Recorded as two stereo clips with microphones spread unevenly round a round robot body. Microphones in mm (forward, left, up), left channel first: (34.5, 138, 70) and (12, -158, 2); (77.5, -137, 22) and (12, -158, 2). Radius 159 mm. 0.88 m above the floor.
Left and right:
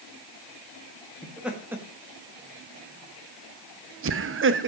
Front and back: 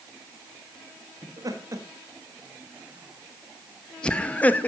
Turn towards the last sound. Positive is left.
turn(degrees=-55)